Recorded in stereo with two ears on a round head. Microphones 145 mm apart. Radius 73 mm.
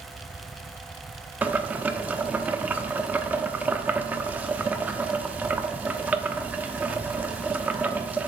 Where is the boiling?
10° right (ahead or behind), 0.9 m.